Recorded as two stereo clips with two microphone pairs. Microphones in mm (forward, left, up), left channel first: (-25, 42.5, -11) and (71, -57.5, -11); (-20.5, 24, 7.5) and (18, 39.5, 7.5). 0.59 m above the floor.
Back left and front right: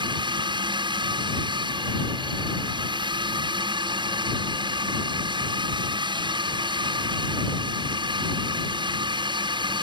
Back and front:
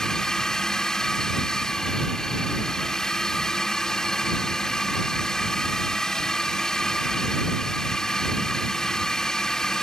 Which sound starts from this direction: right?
A drone, at 0.0 s.